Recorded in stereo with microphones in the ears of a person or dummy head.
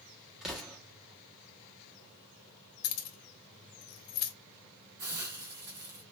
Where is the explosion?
Centre (ahead or behind), 1.2 m.